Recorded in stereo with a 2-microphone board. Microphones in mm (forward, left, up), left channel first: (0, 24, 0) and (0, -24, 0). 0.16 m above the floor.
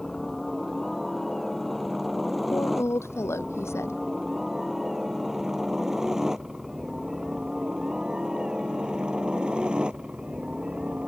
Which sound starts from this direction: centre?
A helicopter, at 0.0 s.